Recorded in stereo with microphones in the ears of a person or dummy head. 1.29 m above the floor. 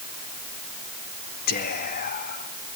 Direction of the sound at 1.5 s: 55° left (ahead or behind).